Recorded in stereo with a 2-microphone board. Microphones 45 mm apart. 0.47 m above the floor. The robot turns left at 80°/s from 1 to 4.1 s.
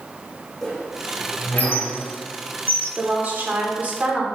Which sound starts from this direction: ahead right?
A woman speaking, at 3.0 s.